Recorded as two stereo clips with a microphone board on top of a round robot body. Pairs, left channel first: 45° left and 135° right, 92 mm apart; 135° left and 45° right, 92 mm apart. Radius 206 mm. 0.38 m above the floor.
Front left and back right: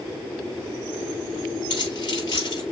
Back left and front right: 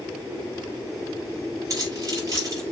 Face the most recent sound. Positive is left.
turn(degrees=5)